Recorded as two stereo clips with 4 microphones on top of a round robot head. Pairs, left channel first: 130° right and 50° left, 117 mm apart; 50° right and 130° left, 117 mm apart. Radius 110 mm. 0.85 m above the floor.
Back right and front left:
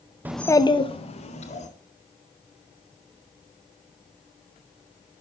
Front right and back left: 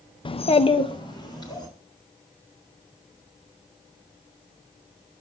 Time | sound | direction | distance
0.2 | a child speaking | 20° right | 0.5 m